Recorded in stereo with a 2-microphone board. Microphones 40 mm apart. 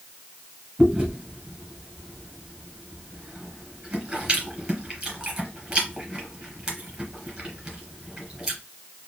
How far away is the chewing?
About 1.5 m.